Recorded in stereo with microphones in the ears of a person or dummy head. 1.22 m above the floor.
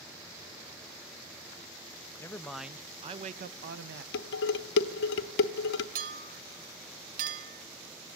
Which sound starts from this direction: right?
A clink, at 6.0 s.